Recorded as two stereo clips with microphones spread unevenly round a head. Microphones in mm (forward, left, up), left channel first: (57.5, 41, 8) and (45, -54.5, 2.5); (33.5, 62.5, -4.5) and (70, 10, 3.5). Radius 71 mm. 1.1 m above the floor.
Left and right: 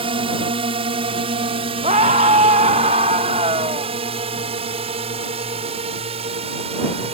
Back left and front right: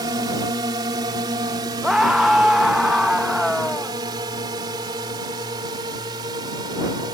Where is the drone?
80° right; by 7.2 s 90° right.